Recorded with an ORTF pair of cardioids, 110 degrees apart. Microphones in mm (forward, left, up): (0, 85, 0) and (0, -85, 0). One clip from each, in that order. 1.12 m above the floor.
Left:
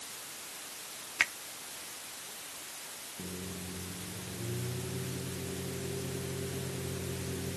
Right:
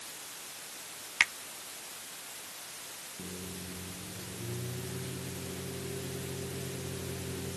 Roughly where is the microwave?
Ahead.